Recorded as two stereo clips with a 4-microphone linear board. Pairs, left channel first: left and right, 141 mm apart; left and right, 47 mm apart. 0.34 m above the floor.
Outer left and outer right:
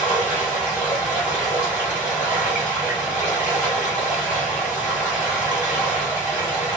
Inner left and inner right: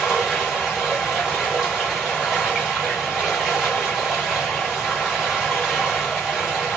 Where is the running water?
10° right (ahead or behind), 1.6 m.